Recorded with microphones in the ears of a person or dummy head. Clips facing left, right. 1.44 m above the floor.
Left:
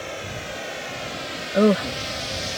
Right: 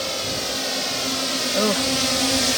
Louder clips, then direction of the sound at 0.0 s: Right 5 dB; 55° right (ahead or behind).